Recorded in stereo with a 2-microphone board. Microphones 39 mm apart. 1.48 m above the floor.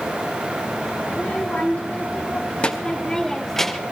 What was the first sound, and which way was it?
A child speaking, 55° left (ahead or behind).